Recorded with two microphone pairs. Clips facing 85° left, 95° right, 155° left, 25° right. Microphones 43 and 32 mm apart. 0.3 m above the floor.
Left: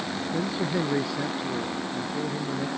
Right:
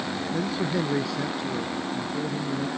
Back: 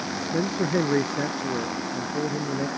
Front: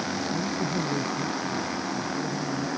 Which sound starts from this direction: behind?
A man speaking, at 0.3 s.